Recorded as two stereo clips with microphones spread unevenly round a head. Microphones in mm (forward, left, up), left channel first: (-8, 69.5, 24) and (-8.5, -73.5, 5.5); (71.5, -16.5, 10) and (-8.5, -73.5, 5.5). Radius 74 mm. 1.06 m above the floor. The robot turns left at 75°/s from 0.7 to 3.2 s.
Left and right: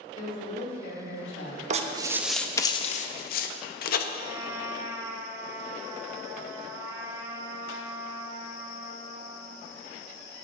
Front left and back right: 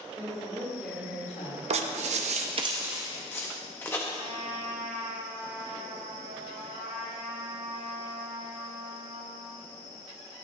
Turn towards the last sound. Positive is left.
turn(degrees=-165)